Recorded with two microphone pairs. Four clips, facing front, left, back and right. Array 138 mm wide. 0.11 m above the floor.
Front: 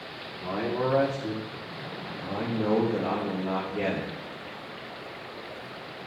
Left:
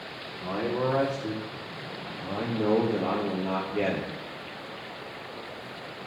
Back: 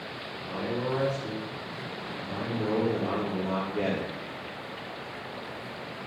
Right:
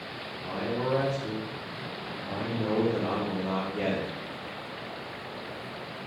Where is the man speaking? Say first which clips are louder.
Left 3 dB, front 3 dB; 65° left, 4.5 m; by 4.1 s 125° left, 3 m.